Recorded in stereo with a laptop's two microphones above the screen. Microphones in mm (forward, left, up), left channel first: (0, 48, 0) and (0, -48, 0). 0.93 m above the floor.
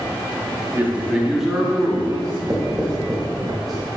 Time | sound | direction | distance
0.8 | a man speaking | 20° right (ahead or behind) | 0.9 m
2.2 | writing | 45° right (ahead or behind) | 1.7 m